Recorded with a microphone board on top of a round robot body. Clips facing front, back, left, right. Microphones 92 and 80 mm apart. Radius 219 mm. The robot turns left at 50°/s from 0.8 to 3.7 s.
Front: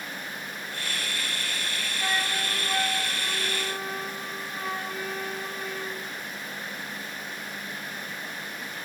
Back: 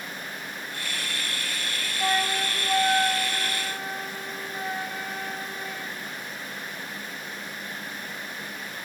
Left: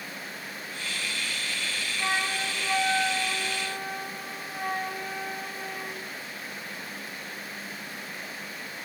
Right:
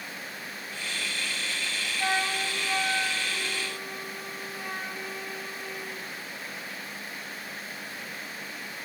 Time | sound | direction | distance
2.0 | a flute | 165° right | 2 m